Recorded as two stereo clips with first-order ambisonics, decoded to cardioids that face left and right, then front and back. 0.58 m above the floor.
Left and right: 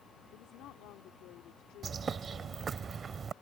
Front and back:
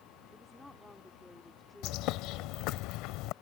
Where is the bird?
20° right.